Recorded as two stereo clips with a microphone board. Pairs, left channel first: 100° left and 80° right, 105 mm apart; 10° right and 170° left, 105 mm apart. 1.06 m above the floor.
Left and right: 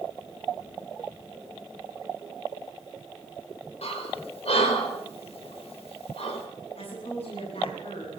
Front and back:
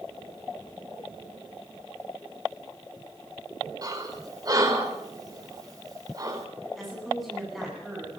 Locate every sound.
3.8 s breathing: 120° left, 4 m
6.8 s a woman speaking: 80° left, 9.5 m